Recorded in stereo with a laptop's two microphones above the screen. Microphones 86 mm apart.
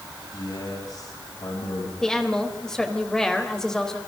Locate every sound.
0.3 s a man speaking: 50° left (ahead or behind), 8 m
2.0 s a woman speaking: 5° left (ahead or behind), 4 m